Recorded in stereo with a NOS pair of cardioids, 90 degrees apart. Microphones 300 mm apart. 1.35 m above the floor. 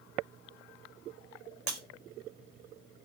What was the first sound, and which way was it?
Breaking glass, 70° right.